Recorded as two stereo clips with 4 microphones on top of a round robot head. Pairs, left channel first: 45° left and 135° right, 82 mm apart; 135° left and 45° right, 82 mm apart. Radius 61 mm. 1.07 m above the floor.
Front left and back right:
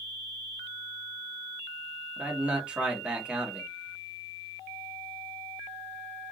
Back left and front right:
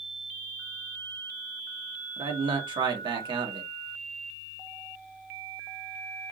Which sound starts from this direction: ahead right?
A man speaking, at 2.2 s.